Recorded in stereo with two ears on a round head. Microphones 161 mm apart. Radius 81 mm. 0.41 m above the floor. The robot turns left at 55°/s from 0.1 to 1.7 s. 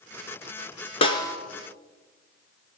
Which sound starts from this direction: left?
A snare drum, at 1.0 s.